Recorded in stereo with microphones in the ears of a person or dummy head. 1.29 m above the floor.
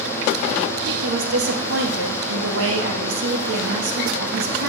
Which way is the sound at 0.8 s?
65° right (ahead or behind).